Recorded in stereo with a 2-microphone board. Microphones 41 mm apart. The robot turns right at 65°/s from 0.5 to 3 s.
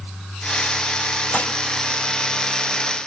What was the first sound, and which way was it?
Dishes clattering, 40° left (ahead or behind).